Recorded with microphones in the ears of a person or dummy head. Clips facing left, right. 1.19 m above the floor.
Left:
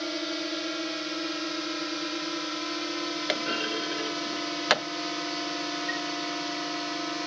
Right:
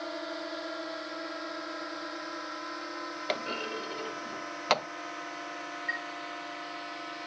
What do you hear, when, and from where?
0.0 s a drone: 40° left (ahead or behind); by 7.3 s 60° left (ahead or behind)
3.3 s a clunk: 10° left (ahead or behind)
5.9 s a chime: 45° right (ahead or behind)